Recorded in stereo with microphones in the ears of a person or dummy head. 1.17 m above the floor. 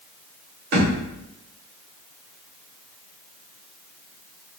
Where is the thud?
60° right (ahead or behind), 1.5 m.